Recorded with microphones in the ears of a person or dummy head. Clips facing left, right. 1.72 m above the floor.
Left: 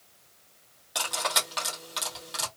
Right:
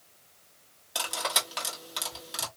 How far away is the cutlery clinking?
About 1.5 m.